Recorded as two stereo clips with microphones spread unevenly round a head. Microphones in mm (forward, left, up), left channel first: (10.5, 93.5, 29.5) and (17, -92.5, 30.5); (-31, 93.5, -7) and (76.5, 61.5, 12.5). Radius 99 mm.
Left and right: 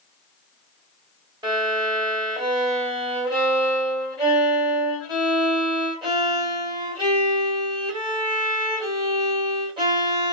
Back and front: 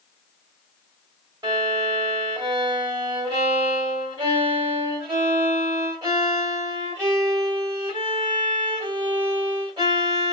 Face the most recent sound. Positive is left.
turn(degrees=-35)